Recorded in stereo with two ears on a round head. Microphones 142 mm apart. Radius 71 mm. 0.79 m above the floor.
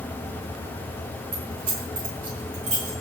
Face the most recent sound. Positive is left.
turn(degrees=-50)  # may be behind; listen again after turning